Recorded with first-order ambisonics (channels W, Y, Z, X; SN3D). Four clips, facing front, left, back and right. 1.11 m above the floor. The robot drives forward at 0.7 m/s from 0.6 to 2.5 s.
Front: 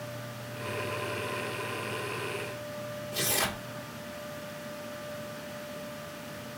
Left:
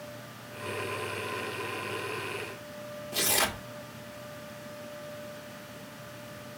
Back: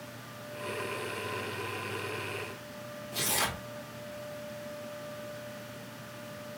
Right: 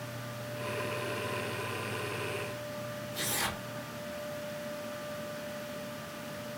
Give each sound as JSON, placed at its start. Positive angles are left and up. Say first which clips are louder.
{"t": 3.1, "sound": "tearing paper", "louder": "left 7 dB, front 1 dB", "azimuth_deg": 95, "distance_m": 1.2}